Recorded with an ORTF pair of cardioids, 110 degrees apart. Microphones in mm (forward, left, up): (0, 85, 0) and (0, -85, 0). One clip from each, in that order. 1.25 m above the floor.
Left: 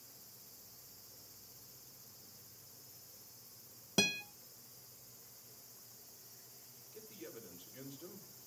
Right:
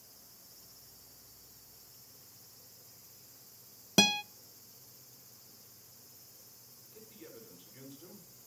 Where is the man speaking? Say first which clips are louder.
Left 1 dB; 10° left, 4 m.